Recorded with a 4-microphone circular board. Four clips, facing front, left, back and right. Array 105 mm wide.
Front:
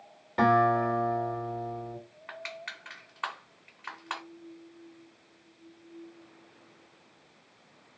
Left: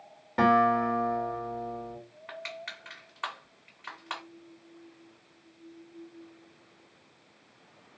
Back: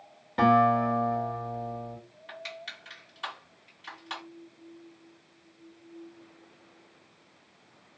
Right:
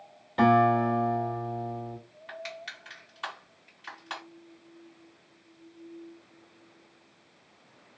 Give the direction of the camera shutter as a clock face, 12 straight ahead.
I don't hear a camera shutter.